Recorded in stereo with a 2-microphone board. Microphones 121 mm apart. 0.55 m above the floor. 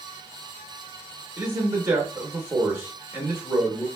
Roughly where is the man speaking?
Centre.